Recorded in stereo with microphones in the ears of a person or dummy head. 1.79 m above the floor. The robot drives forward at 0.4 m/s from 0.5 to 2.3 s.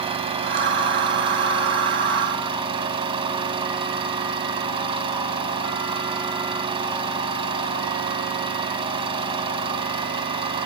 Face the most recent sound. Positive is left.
turn(degrees=-25)  # may be behind; listen again after turning